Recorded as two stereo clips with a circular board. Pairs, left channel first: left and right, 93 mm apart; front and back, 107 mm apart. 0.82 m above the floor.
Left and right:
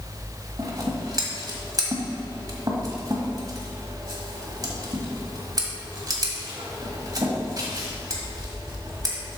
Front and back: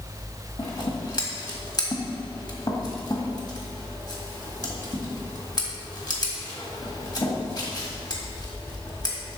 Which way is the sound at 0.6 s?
45° right.